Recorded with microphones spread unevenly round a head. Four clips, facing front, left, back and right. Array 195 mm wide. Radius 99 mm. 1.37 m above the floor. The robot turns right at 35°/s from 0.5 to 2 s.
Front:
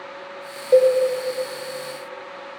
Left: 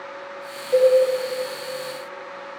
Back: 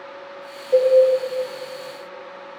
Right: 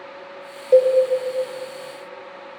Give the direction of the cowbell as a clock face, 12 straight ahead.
2 o'clock.